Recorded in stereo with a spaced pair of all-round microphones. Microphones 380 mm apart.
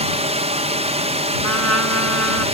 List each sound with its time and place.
0.0 s a drone: 15° right (ahead or behind)
1.4 s a trumpet: 45° left (ahead or behind)